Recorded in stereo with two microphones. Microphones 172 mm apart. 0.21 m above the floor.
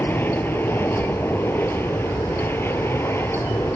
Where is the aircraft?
10° left (ahead or behind); by 3.8 s 15° left (ahead or behind).